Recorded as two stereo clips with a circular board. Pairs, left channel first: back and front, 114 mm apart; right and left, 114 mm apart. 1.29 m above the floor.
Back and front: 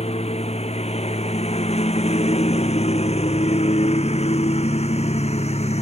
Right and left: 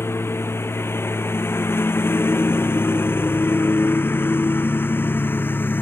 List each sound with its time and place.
0.0 s a lawn mower: 160° right